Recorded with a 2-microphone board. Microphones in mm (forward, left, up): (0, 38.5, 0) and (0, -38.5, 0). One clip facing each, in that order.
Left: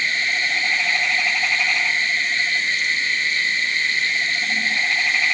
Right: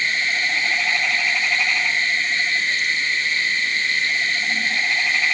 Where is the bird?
I don't hear a bird.